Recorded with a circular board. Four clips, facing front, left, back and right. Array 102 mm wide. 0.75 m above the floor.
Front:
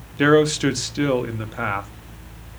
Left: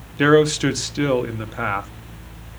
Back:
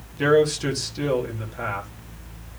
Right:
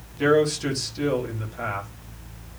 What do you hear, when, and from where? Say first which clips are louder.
0.2 s a man speaking: left 5 dB, front 3 dB; 50° left, 1.2 m